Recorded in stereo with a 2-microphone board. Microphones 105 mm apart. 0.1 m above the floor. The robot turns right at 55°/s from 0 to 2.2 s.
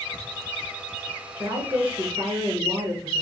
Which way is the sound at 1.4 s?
125° right.